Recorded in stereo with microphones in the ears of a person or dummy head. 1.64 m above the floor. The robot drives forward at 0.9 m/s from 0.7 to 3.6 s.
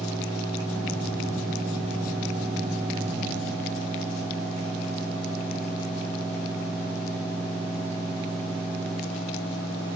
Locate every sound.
Only background noise.